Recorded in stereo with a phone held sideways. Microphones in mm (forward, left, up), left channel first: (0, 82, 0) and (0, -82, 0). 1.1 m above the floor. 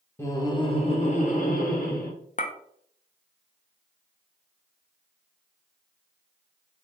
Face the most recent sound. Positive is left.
turn(degrees=55)  # may be behind; listen again after turning